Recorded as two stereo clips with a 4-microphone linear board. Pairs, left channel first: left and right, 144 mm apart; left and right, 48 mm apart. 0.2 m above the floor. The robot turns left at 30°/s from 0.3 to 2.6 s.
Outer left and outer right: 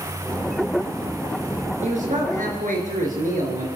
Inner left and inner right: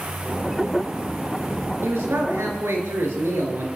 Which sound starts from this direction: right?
A man speaking, at 1.8 s.